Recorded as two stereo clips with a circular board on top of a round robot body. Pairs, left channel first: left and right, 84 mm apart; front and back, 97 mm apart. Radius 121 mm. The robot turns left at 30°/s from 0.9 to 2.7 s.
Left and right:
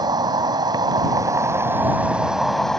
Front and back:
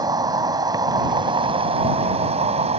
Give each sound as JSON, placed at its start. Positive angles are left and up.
{"t": 0.0, "sound": "an insect", "azimuth_deg": -130}